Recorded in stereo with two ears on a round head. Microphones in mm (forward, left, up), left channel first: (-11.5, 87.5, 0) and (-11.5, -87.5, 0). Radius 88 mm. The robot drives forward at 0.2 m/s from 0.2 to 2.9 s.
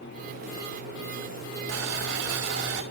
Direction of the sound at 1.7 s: 75° right (ahead or behind).